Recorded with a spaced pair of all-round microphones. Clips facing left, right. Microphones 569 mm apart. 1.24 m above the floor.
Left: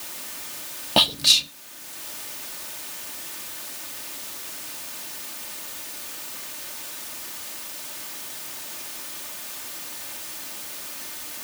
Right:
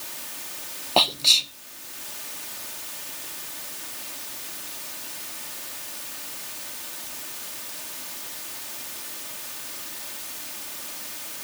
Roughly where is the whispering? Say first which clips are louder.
Left 1 dB; left.